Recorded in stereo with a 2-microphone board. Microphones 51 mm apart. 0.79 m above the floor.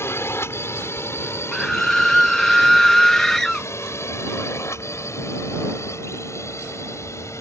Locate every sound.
0.0 s a drone: 50° left (ahead or behind); by 7.4 s 65° left (ahead or behind)
1.5 s a scream: 5° left (ahead or behind)